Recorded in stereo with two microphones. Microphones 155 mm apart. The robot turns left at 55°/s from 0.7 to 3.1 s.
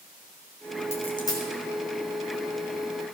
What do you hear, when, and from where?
0.9 s a dropped coin: 45° left (ahead or behind), 2.5 m; by 1.5 s 15° left (ahead or behind), 2.5 m